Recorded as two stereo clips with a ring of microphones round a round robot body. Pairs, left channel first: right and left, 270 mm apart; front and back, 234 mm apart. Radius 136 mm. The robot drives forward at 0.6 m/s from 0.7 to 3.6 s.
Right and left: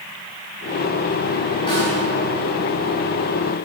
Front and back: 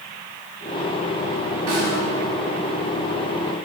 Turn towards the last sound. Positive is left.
turn(degrees=-165)